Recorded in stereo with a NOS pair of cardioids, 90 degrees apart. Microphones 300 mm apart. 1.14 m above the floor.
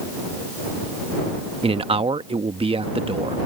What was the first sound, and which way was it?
A man speaking, 20° right.